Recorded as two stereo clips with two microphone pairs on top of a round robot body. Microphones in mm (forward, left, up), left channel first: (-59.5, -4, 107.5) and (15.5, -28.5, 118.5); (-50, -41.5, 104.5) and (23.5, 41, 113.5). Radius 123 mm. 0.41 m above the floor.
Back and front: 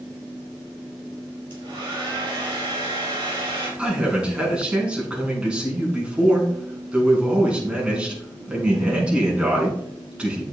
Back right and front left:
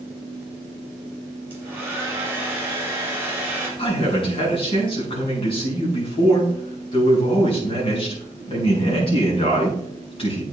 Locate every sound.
1.5 s a hair dryer: 25° right, 4.5 m
3.8 s a man speaking: 95° right, 5.5 m